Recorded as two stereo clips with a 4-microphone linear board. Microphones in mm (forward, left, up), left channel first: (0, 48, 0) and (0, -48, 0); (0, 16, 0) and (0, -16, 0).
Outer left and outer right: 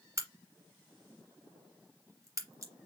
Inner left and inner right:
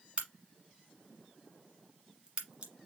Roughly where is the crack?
Right.